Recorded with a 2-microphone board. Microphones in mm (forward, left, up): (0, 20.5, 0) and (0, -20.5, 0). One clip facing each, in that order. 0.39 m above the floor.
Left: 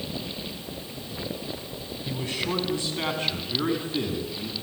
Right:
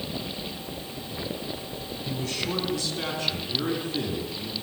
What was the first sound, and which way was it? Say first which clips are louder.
A man speaking: left 1 dB; 20° left (ahead or behind).